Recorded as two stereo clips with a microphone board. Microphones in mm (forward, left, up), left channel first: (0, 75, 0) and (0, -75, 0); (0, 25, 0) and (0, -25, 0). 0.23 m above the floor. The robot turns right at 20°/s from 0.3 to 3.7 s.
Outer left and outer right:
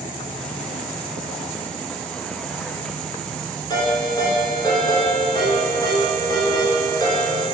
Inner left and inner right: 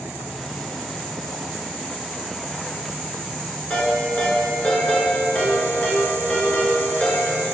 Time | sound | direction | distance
3.7 | a ringtone | 30° left (ahead or behind) | 2 m